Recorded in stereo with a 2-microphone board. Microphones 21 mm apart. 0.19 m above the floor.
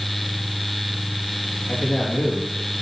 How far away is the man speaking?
About 5 m.